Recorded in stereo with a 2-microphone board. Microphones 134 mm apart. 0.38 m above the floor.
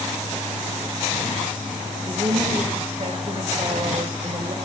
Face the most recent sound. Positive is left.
turn(degrees=-45)  # may be behind; listen again after turning